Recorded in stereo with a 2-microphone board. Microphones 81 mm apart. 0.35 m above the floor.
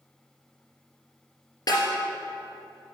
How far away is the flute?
I don't hear a flute.